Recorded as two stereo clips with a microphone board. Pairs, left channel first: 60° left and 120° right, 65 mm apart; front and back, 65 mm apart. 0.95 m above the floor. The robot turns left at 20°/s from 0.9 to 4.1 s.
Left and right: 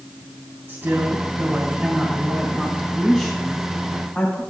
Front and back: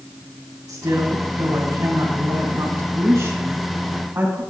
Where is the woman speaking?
175° right, 3 m; by 4.4 s 120° left, 3 m.